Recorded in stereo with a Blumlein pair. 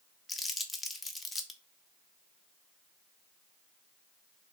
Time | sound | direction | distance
0.3 | crumpling | 10° left | 0.7 m